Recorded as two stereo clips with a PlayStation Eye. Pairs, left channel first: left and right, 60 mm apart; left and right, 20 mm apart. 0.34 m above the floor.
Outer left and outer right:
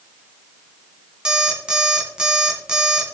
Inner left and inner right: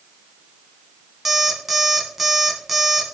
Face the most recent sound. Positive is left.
turn(degrees=-15)  # may be behind; listen again after turning